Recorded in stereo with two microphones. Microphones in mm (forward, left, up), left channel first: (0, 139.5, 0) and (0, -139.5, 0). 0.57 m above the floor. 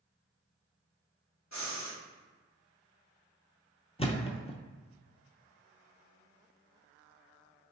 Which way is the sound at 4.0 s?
20° left (ahead or behind).